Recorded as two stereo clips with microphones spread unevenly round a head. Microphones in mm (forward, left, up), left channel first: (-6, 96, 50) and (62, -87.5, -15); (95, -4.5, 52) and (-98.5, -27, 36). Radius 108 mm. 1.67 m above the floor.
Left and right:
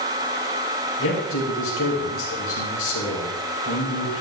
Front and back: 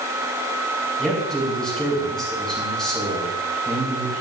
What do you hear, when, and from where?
1.0 s a man speaking: 95° left, 4 m